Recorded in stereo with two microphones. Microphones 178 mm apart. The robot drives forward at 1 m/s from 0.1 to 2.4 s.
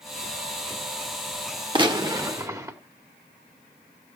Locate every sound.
1.8 s a gunshot: 25° right (ahead or behind), 1.5 m; by 2.8 s 20° right (ahead or behind), 2 m